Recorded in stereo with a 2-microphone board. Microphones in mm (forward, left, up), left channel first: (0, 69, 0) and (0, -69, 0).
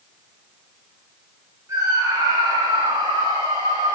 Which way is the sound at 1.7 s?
25° right (ahead or behind).